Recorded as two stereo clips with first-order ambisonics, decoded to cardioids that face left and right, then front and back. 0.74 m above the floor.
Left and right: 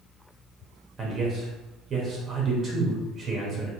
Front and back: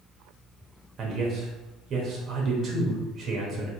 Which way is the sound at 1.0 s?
140° right.